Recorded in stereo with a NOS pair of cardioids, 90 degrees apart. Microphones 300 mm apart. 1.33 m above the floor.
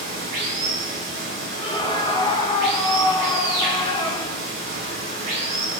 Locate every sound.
0.0 s running water: 60° right, 1.2 m
1.6 s a scream: 15° left, 1.0 m